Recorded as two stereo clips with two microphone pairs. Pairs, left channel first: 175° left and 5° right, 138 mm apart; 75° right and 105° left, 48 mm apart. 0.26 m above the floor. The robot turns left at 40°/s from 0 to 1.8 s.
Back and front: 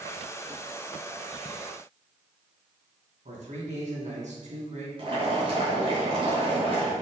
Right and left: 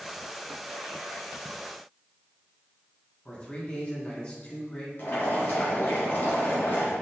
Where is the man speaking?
20° right, 2.5 m.